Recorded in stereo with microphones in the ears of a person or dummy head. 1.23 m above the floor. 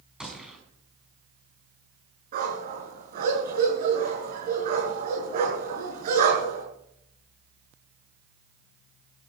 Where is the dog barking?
55° right (ahead or behind), 6.5 m.